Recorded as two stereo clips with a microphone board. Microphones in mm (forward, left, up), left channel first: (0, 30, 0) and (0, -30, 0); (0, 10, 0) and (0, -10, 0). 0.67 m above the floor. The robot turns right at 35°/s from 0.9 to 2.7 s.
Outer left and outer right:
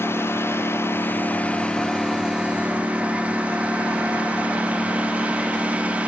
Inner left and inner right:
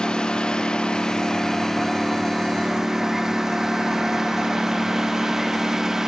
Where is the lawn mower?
135° left; by 6.1 s 160° right.